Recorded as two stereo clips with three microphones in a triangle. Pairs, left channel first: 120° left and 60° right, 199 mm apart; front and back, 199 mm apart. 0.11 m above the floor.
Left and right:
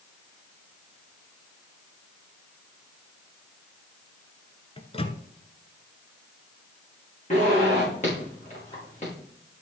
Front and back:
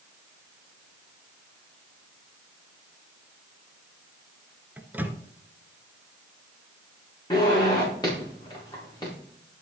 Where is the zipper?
70° left, 5 m.